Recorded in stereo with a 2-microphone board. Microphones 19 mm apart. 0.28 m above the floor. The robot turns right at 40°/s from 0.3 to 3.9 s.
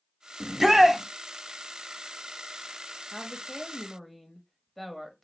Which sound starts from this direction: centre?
A woman speaking, at 3.1 s.